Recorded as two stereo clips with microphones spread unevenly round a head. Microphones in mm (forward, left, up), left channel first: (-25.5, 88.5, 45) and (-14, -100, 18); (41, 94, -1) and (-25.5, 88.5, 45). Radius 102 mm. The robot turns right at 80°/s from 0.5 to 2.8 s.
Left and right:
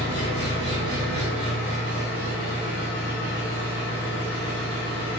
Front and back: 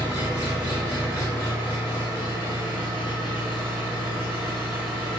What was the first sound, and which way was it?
An engine running, 165° right.